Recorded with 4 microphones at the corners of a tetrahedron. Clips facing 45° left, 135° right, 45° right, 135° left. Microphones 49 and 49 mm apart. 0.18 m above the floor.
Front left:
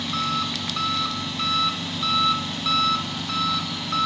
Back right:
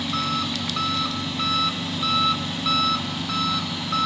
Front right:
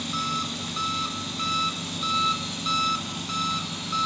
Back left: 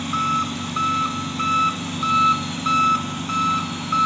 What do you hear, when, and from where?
0.0 s an engine running: 140° left, 1.0 m